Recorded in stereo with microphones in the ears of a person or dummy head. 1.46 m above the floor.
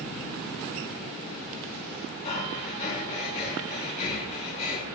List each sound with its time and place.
2.2 s breathing: 45° left (ahead or behind), 2.5 m